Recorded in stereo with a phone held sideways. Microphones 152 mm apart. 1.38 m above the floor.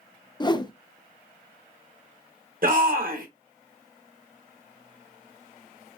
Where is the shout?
60° right (ahead or behind), 1.4 m.